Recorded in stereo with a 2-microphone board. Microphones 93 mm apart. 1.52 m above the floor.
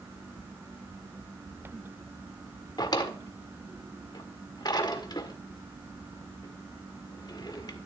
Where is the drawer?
45° left (ahead or behind), 1.6 m.